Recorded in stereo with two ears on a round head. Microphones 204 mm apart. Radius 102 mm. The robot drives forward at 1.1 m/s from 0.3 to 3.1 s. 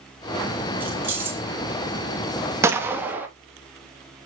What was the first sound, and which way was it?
Keys jangling, 10° right (ahead or behind).